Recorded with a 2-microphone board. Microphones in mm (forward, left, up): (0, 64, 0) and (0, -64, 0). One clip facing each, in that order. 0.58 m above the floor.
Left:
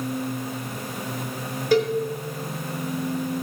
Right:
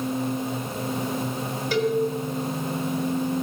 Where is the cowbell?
50° left (ahead or behind), 1.7 m.